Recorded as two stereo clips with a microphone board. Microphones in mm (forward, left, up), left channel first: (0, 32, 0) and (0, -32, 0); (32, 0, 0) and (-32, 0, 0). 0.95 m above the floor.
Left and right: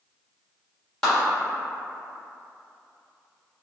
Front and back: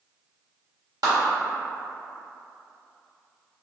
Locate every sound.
1.0 s a clap: straight behind, 1.6 m